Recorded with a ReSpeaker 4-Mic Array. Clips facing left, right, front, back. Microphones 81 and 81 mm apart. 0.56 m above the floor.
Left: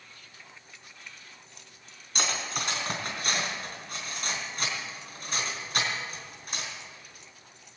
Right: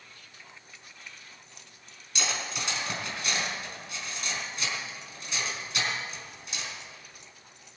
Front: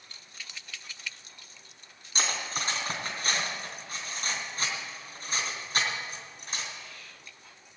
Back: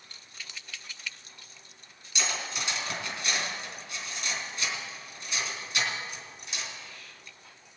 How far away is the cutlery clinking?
About 3.5 m.